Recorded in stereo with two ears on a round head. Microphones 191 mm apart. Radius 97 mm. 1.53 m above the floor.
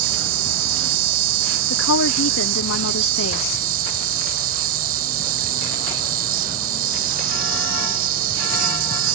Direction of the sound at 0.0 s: 45° right (ahead or behind).